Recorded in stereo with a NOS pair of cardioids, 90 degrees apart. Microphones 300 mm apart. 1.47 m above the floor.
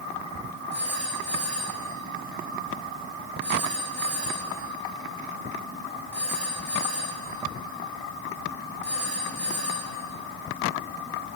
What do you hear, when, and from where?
0.7 s a phone ringing: 40° right, 5.5 m